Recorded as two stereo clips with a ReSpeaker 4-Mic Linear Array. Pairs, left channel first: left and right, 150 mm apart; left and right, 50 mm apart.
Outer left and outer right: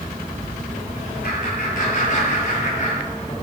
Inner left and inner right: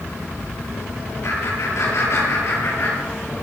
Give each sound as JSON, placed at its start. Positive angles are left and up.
{"t": 1.2, "sound": "laughter", "side_deg": 60, "distance_m": 9.0}